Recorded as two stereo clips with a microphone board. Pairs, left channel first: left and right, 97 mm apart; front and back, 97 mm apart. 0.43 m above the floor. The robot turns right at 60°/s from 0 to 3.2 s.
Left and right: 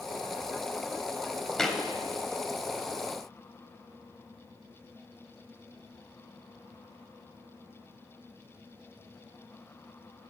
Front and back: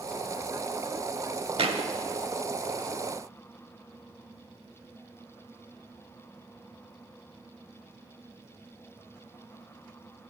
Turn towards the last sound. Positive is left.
turn(degrees=-90)